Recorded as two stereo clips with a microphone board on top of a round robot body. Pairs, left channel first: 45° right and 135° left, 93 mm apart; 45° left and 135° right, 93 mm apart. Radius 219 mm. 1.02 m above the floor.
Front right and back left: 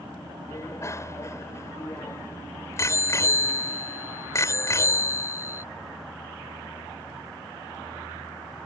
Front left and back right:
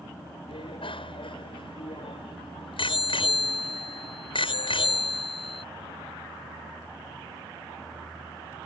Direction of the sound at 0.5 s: 15° left.